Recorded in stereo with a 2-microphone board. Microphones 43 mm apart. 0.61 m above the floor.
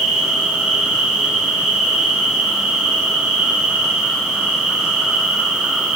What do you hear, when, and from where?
0.0 s an insect: 15° right (ahead or behind), 4 m